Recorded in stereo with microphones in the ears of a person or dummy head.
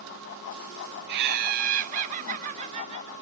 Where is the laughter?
55° right (ahead or behind), 1.2 m; by 3.1 s 35° right (ahead or behind), 3 m.